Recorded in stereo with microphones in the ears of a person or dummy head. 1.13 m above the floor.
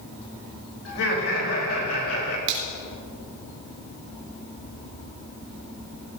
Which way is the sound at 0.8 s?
85° left.